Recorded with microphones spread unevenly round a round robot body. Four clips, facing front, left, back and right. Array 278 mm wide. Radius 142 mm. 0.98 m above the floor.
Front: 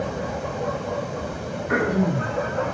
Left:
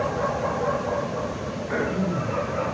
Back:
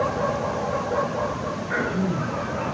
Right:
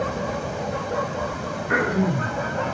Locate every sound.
1.7 s throat clearing: 25° right, 6.5 m